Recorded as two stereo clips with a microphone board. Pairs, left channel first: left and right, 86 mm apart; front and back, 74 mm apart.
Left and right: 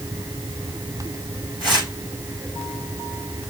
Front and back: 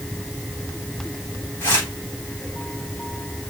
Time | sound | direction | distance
1.6 | tearing paper | 60° right | 8 m